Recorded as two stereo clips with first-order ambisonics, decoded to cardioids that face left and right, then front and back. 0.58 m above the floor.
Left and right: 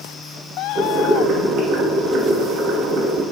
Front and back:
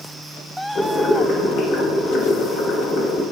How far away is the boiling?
About 0.8 m.